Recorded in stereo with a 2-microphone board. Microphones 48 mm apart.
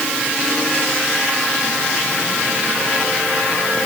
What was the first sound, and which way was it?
Only background noise.